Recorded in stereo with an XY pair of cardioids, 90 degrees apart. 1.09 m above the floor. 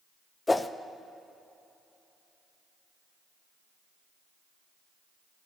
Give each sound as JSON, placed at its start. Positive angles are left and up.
{"t": 0.5, "sound": "a whoosh", "azimuth_deg": 20, "distance_m": 0.7}